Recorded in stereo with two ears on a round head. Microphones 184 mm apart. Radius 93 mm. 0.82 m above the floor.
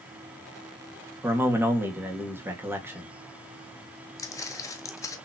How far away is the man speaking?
About 1.4 m.